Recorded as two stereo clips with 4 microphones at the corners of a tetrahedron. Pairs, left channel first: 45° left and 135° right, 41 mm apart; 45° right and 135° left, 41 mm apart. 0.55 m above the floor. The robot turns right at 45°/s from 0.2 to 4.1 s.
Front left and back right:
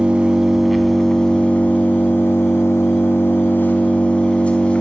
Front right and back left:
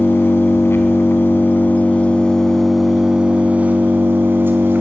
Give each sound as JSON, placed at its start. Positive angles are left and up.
{"t": 0.0, "sound": "an engine running", "azimuth_deg": -70, "distance_m": 4.0}